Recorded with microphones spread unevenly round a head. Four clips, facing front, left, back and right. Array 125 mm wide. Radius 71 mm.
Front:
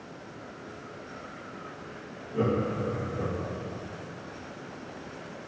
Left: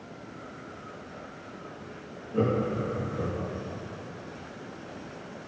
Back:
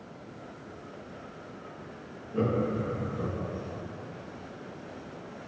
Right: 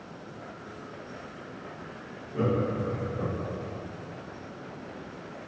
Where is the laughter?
110° left, 2 m.